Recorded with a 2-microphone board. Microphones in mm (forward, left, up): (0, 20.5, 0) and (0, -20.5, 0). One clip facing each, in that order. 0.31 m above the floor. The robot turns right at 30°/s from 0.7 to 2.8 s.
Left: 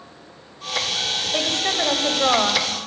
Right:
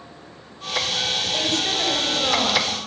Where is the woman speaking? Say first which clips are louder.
Left 3 dB; 55° left, 1.7 m; by 2.9 s 100° left, 1.7 m.